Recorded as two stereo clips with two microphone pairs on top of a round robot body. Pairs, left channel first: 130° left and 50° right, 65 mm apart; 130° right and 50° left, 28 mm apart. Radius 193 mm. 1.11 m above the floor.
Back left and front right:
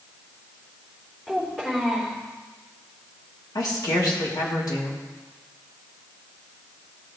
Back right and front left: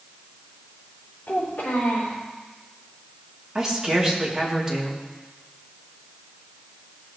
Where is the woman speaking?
120° left, 3 m.